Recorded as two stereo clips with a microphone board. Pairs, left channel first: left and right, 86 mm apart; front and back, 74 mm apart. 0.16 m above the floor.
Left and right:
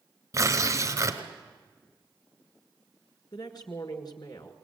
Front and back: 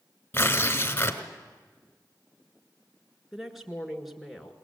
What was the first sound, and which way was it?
Tearing paper, 55° right.